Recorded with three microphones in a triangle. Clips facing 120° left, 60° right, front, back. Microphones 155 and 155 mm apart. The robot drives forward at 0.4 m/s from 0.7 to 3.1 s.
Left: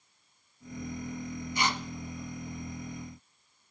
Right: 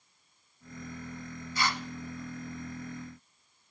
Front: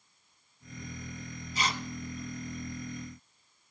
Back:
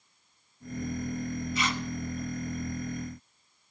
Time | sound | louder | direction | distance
1.6 | tearing paper | left 1 dB, front 1 dB | 50° left | 0.6 m